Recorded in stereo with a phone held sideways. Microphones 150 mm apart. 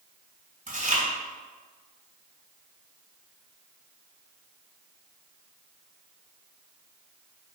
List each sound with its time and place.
0.7 s chewing: 55° right (ahead or behind), 4.5 m